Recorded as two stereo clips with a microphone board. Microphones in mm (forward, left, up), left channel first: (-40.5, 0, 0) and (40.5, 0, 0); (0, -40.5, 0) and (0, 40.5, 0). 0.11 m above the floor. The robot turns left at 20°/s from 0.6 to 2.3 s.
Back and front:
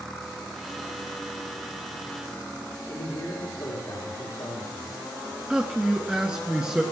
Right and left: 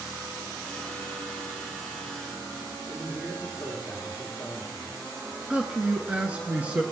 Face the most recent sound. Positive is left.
turn(degrees=60)